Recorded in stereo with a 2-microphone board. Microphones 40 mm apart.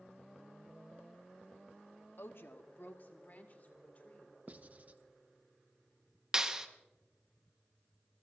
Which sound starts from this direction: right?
Writing, at 4.5 s.